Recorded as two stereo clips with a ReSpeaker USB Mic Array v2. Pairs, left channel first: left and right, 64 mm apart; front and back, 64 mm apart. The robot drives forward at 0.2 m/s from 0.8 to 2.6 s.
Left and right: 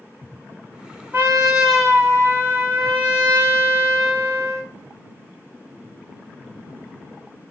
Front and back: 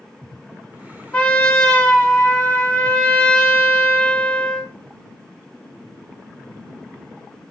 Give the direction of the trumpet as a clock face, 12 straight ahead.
2 o'clock.